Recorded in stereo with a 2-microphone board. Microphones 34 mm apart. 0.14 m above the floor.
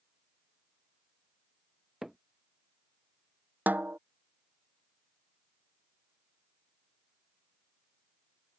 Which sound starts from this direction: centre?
Hammering, at 2.0 s.